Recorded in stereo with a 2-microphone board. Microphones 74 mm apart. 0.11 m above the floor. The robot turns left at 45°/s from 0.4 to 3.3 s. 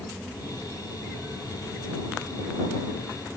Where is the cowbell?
I don't hear a cowbell.